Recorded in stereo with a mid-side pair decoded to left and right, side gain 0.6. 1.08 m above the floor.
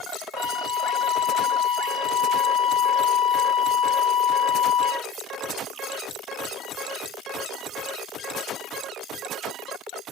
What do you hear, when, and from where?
0.3 s a flute: 50° left, 0.9 m